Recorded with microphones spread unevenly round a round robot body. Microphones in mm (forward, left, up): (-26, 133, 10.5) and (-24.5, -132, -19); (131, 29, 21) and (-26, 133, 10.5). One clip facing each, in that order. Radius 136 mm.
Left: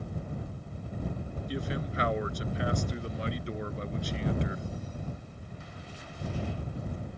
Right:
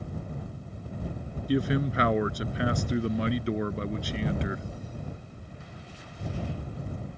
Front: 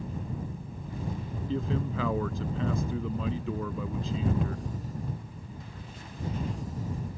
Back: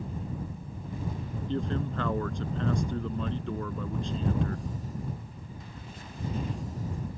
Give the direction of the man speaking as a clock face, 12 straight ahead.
4 o'clock.